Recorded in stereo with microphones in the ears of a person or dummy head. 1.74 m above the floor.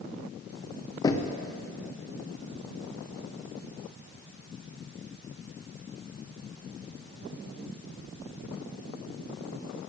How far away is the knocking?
About 0.6 m.